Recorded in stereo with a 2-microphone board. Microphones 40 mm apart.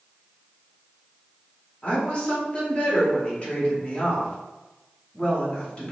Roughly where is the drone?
No drone in this recording.